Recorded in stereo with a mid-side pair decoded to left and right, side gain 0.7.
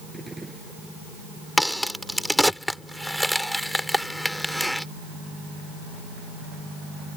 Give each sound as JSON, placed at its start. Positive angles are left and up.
{"t": 0.1, "sound": "a gunshot", "azimuth_deg": -10}
{"t": 1.6, "sound": "a crack", "azimuth_deg": 0}